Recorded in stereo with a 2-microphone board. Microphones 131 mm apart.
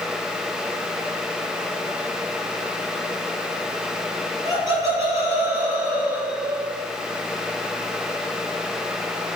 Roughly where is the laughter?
Right.